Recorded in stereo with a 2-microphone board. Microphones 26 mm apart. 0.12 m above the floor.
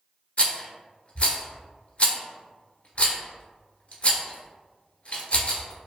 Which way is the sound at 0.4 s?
50° left (ahead or behind).